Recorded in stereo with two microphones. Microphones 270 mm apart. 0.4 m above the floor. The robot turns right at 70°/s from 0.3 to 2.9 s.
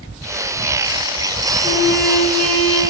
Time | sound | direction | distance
1.6 | a trumpet | 170° right | 3 m